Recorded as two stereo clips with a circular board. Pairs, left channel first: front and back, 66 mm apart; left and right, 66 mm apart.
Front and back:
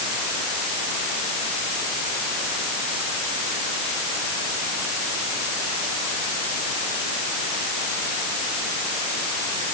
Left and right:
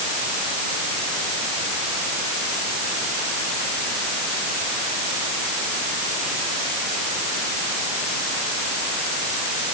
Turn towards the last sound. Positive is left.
No sound to turn to.